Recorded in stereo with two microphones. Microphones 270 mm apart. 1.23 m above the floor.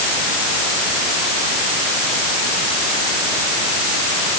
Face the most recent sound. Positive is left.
No sound to turn to.